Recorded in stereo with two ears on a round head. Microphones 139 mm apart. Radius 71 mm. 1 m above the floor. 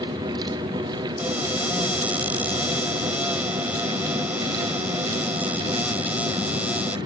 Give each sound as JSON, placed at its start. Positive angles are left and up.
{"t": 1.2, "sound": "a cupboard door", "side_deg": -10}